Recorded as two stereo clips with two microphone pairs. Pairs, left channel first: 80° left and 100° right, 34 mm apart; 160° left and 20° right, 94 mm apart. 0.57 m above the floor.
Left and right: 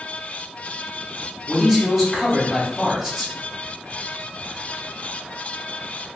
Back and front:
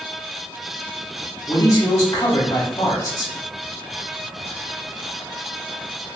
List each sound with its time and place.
1.5 s a man speaking: straight behind, 1.0 m